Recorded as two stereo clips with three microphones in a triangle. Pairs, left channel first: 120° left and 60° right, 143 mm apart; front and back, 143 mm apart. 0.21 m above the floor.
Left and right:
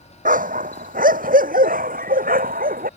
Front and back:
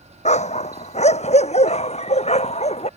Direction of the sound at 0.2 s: 40° right.